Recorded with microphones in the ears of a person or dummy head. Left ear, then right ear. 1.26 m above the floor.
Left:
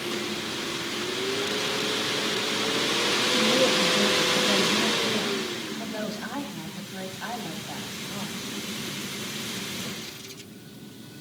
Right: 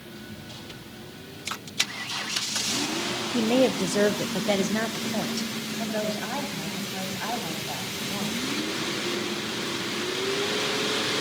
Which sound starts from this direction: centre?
A woman speaking, at 5.8 s.